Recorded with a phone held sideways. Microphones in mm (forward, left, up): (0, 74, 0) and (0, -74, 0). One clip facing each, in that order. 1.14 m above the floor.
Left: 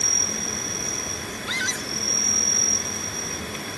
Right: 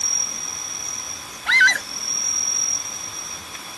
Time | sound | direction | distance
0.0 | an insect | 60° left (ahead or behind) | ?
1.5 | a scream | 70° right (ahead or behind) | ?